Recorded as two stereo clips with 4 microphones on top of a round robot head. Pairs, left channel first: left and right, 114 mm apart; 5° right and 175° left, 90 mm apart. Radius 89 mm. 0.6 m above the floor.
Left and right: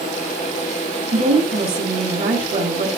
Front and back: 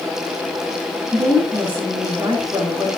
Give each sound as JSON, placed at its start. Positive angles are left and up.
{"t": 1.1, "sound": "a woman speaking", "azimuth_deg": -110, "distance_m": 9.0}